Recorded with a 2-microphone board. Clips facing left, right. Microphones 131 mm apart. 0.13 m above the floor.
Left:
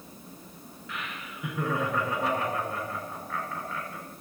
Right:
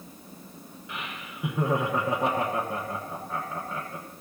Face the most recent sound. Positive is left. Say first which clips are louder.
# even
turn(degrees=-20)  # may be behind; listen again after turning